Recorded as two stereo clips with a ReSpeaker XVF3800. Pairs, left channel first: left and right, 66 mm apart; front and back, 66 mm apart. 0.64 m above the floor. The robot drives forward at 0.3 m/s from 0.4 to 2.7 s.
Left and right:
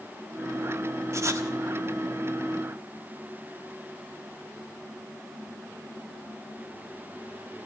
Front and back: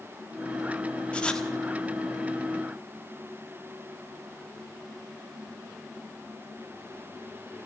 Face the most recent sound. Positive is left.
turn(degrees=-100)